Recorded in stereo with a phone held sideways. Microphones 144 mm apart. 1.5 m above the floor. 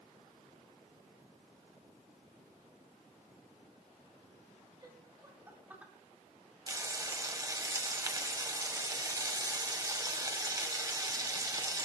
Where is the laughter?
30° right (ahead or behind), 3 m; by 5.9 s 10° right (ahead or behind), 3.5 m.